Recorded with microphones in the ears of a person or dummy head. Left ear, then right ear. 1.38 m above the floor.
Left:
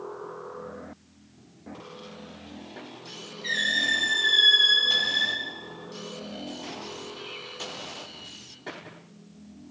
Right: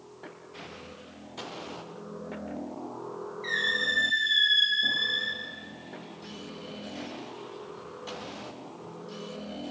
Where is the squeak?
35° right (ahead or behind), 1.2 m.